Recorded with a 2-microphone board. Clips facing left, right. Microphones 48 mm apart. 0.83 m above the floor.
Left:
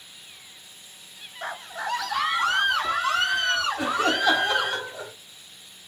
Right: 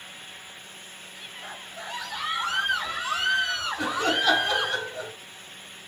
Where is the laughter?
20° left (ahead or behind), 2.5 m.